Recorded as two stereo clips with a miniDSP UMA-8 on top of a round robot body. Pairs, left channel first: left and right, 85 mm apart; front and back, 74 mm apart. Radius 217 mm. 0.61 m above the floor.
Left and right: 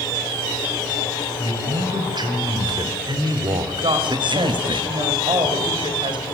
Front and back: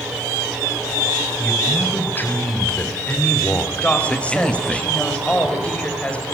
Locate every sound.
1.4 s a man speaking: 60° right, 4.5 m; by 4.8 s 85° right, 1.6 m
3.8 s a woman speaking: 70° right, 4.5 m